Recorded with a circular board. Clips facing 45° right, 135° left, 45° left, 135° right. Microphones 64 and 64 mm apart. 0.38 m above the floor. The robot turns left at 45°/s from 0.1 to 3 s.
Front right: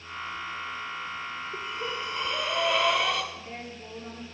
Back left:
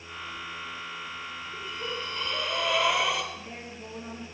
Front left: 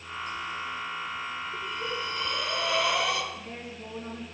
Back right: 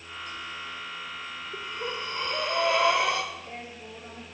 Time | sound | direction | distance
1.5 | breathing | 85° right | 1.0 m
3.3 | a woman speaking | 85° left | 4.5 m